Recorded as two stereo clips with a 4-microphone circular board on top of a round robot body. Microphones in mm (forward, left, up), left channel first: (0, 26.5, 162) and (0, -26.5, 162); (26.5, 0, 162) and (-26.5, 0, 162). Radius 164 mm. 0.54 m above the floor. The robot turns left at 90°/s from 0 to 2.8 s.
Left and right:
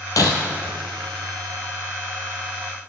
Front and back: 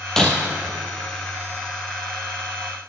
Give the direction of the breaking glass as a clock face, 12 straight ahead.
9 o'clock.